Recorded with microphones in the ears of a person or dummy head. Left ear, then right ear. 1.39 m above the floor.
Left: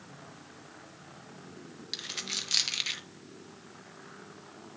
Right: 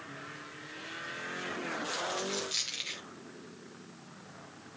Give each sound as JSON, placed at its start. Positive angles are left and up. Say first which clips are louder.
{"t": 1.9, "sound": "a dropped coin", "louder": "left 3 dB", "side_deg": 25, "distance_m": 0.8}